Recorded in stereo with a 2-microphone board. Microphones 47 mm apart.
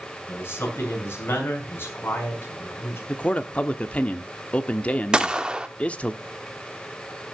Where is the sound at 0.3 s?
50° left (ahead or behind), 5 m.